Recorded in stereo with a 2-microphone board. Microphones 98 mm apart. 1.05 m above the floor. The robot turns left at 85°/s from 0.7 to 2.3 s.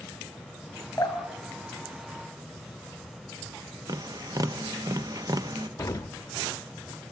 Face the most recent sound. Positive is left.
turn(degrees=30)  # may be behind; listen again after turning